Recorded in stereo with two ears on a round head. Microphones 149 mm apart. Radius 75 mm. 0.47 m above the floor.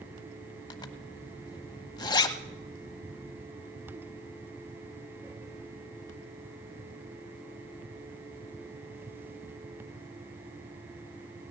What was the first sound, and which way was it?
A zipper, 25° left (ahead or behind).